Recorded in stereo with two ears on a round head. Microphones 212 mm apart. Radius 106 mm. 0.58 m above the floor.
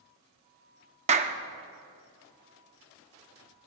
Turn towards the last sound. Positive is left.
turn(degrees=-30)  # may be behind; listen again after turning